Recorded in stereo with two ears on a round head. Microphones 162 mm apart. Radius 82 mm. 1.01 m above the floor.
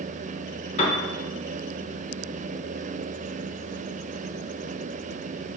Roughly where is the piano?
Left.